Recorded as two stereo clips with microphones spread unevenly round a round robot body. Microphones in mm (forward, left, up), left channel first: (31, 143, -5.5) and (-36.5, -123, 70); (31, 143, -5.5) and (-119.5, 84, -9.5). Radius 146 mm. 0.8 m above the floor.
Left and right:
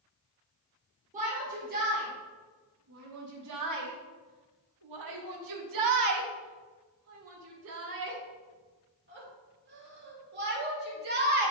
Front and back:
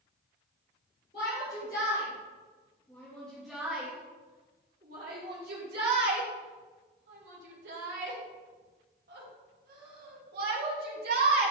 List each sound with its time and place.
1.1 s a shout: 35° right, 3 m; by 11.5 s 165° right, 5.5 m